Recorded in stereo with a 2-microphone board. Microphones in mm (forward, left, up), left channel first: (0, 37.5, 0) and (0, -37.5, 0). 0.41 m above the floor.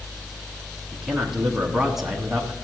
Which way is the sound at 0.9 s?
5° right (ahead or behind).